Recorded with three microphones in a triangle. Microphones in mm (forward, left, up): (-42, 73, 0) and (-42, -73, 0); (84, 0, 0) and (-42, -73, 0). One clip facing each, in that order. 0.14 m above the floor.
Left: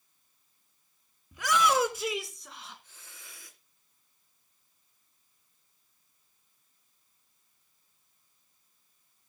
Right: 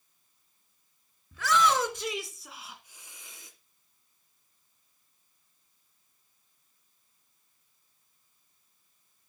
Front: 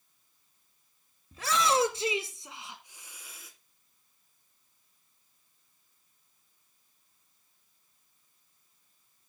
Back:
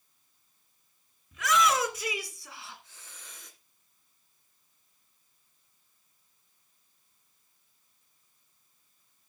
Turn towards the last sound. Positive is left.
turn(degrees=-50)